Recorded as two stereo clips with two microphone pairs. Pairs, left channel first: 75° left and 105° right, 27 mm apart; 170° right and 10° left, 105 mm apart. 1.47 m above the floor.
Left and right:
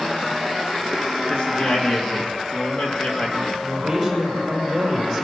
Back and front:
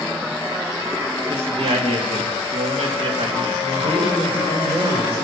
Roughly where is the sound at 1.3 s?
Ahead left.